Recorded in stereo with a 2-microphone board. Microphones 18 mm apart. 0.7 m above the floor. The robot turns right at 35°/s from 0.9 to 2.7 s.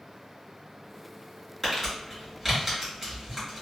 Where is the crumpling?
15° left (ahead or behind), 1.7 m; by 3.6 s 15° right (ahead or behind), 1.7 m.